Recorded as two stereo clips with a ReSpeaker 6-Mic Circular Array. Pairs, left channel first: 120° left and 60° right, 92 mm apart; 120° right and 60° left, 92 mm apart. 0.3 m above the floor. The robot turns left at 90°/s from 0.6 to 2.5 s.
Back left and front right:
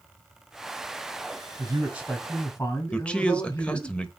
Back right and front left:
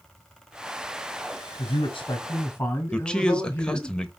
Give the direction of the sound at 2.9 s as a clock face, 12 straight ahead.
6 o'clock.